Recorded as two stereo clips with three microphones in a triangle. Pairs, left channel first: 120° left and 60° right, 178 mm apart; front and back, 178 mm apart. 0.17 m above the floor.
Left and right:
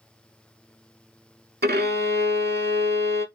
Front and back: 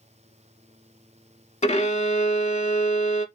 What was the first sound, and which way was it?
A violin, 45° right.